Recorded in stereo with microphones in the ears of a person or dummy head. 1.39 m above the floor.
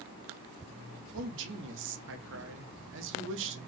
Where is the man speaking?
65° right (ahead or behind), 0.8 m.